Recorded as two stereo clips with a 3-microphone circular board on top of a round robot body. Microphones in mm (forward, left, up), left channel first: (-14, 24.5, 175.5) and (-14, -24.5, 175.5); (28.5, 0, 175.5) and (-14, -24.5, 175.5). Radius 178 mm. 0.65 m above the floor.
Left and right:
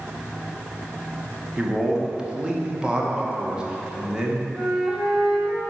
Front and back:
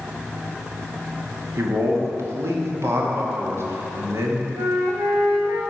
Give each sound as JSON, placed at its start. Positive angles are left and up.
{"t": 1.6, "sound": "a man speaking", "azimuth_deg": -165, "distance_m": 2.0}
{"t": 4.6, "sound": "a flute", "azimuth_deg": -170, "distance_m": 0.6}